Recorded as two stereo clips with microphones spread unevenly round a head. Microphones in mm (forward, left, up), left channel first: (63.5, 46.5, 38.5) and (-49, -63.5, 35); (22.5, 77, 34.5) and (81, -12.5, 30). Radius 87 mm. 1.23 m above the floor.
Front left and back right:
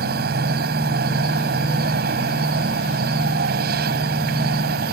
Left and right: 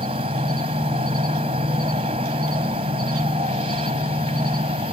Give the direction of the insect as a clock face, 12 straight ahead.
4 o'clock.